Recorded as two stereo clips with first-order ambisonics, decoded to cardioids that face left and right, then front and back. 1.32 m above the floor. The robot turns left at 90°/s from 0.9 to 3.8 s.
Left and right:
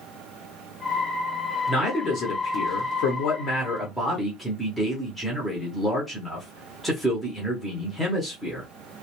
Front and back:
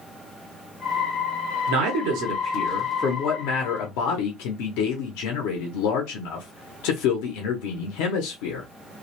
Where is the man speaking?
170° right, 0.7 m; by 8.7 s straight ahead, 0.7 m.